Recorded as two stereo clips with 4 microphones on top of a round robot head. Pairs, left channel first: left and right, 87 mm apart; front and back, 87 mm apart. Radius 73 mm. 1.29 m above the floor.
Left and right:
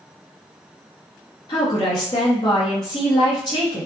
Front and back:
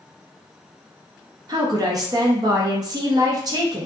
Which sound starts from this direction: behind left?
A woman speaking, at 1.5 s.